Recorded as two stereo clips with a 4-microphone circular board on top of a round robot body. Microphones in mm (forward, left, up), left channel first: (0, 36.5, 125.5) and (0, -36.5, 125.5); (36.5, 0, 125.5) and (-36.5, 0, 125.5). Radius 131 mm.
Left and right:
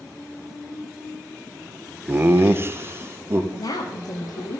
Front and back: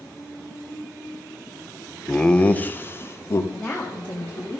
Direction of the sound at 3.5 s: 75° left.